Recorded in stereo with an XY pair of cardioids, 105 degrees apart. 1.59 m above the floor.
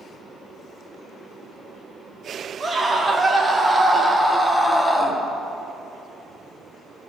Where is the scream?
30° right, 2.5 m; by 5.2 s 15° left, 1.5 m.